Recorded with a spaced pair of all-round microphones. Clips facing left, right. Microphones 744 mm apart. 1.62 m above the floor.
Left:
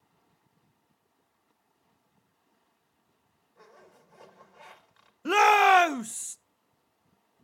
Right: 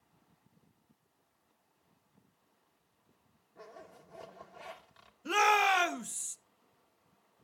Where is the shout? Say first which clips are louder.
Left 8 dB; 80° left, 0.7 m.